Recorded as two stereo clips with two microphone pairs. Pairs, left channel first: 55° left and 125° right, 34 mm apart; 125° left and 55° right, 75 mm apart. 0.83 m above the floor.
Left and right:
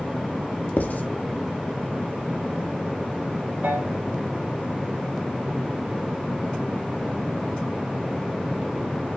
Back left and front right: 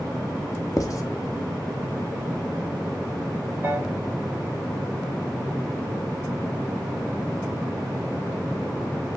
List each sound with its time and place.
0.8 s writing: 85° left, 1.4 m
3.6 s a piano: 120° right, 5.5 m